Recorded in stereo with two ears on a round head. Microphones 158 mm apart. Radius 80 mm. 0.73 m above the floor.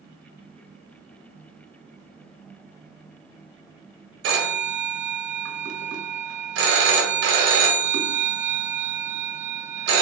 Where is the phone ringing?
80° right, 0.8 m.